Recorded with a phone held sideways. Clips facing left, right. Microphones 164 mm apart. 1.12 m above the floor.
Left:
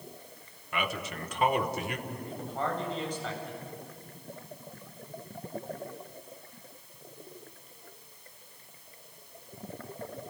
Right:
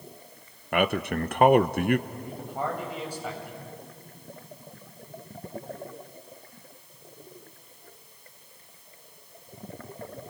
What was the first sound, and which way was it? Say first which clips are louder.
A man speaking: right 9 dB; 60° right (ahead or behind).